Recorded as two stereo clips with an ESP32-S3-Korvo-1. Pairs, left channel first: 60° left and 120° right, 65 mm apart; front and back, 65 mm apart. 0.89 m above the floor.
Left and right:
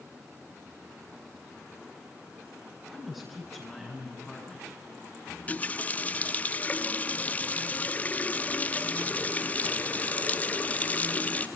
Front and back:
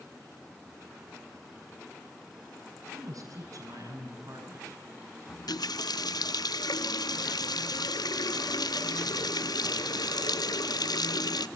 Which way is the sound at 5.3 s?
5° right.